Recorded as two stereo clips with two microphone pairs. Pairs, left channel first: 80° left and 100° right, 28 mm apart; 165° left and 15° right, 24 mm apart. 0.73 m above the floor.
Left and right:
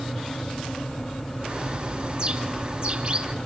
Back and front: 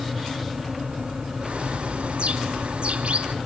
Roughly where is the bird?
Ahead right.